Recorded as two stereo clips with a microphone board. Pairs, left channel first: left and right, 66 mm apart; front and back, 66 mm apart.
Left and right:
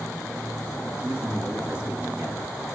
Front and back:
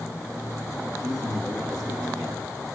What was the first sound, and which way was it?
A man speaking, 15° right.